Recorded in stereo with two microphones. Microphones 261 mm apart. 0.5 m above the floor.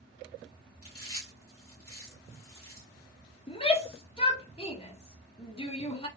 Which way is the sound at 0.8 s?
60° left (ahead or behind).